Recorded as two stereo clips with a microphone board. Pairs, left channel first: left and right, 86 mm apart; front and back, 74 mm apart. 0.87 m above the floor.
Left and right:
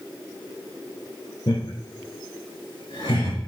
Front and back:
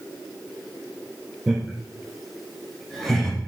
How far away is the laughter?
About 4 m.